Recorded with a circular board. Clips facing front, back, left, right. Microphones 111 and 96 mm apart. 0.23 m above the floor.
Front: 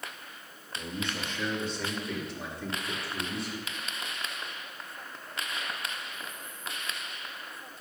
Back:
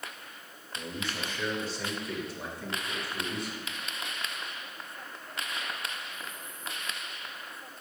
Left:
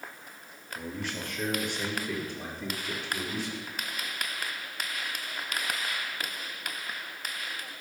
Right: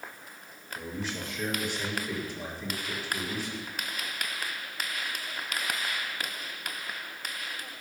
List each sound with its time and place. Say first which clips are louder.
0.8 s a man speaking: front 1 dB, even; 95° left, 3.5 m; by 3.7 s 90° left, 5 m